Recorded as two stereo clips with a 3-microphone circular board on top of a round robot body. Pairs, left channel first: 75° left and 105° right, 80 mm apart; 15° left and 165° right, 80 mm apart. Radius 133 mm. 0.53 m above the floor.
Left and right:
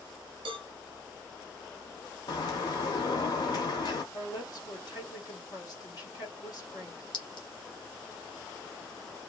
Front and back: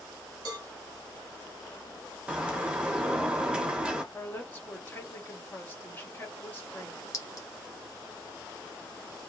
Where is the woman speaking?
80° left, 1.7 m.